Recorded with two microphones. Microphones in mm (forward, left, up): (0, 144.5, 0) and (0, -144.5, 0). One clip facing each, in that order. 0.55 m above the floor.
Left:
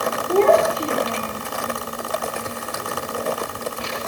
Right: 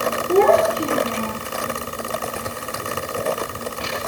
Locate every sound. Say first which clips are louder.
0.3 s a child speaking: right 1 dB; 15° right (ahead or behind), 6 m; by 1.4 s 20° right (ahead or behind), 5.5 m